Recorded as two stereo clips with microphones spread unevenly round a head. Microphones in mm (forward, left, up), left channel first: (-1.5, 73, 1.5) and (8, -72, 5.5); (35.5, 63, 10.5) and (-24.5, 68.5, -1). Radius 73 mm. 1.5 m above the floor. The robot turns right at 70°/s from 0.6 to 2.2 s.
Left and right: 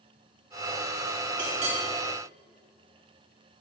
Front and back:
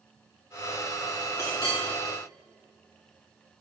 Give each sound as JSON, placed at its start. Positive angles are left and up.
{"t": 1.4, "sound": "a clink", "azimuth_deg": -50, "distance_m": 2.5}